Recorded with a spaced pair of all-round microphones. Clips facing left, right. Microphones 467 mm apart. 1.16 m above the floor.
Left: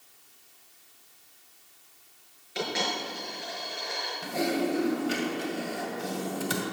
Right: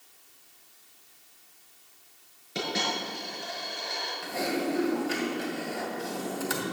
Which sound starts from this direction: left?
Typing on a keyboard, at 4.2 s.